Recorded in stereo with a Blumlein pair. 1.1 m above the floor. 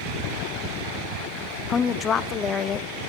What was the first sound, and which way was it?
A woman speaking, 25° left.